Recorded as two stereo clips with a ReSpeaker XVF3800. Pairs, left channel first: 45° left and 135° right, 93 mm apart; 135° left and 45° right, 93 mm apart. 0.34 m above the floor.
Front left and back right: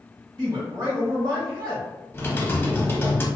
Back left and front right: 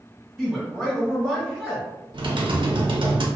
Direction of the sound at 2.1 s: 20° right.